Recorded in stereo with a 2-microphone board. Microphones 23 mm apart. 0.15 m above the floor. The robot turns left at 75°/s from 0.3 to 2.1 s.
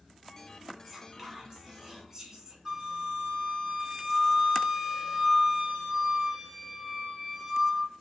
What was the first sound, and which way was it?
Whispering, 5° right (ahead or behind).